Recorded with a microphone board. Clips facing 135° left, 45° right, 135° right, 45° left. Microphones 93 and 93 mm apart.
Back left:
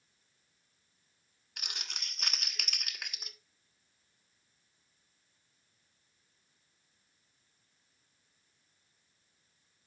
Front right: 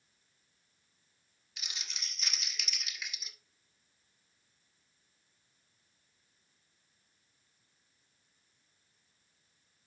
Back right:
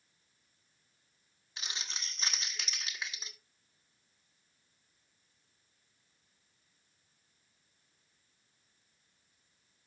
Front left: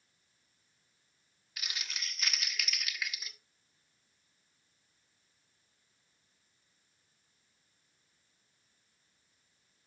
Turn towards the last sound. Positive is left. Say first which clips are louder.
# back left 2 dB, even
turn(degrees=165)